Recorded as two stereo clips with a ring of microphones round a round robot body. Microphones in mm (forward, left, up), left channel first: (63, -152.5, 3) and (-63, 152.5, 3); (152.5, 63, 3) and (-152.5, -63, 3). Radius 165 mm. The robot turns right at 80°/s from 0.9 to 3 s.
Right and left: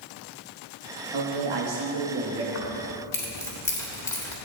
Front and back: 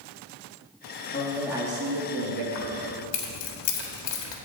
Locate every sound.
1.1 s a man speaking: 90° left, 1.2 m; by 2.5 s 165° right, 1.2 m
2.5 s keys jangling: 25° right, 1.6 m; by 4.3 s 15° left, 1.6 m